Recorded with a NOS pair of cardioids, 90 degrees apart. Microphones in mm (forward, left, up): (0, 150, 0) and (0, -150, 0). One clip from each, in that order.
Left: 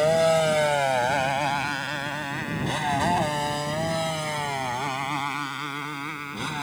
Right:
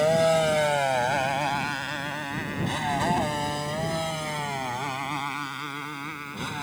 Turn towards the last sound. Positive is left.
turn(degrees=20)